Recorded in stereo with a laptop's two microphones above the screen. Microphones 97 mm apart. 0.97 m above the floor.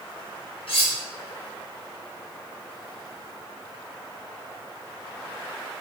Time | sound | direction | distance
0.7 | cutlery clinking | 70° left (ahead or behind) | 0.6 m